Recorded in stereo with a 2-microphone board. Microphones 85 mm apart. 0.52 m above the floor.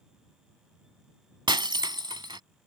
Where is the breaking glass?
65° right (ahead or behind).